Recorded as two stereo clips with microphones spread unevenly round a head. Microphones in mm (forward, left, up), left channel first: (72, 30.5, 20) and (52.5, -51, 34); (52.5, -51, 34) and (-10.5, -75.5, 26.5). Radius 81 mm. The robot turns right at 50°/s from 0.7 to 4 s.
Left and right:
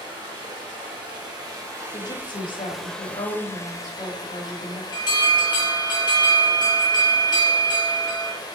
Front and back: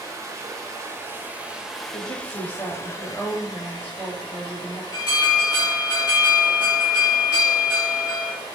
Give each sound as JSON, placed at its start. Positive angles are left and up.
{"t": 0.0, "sound": "running water", "azimuth_deg": -125, "distance_m": 1.1}
{"t": 1.9, "sound": "a woman speaking", "azimuth_deg": 35, "distance_m": 1.3}
{"t": 4.9, "sound": "an alarm", "azimuth_deg": 60, "distance_m": 1.5}